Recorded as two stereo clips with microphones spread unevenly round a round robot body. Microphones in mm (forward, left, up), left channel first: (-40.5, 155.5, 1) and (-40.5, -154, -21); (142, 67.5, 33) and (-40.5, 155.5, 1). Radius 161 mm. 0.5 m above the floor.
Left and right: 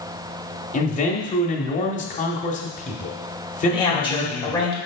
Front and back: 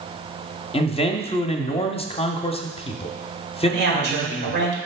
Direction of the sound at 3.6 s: 165° left.